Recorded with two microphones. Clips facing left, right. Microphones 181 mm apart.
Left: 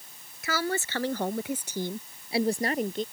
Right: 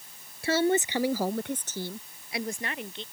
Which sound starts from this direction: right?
A woman speaking, at 0.4 s.